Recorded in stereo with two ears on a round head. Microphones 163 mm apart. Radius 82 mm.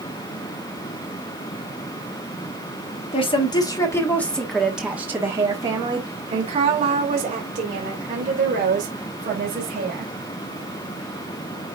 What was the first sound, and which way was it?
A woman speaking, 30° left (ahead or behind).